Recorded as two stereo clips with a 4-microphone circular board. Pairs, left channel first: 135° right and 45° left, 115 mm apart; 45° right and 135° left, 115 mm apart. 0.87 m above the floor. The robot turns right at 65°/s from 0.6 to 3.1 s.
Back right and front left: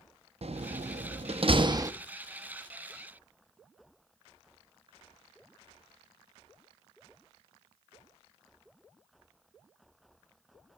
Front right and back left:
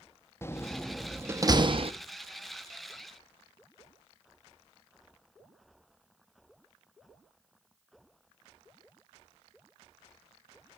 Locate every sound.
0.4 s a door slam: 20° left, 0.7 m; by 1.9 s 105° left, 0.7 m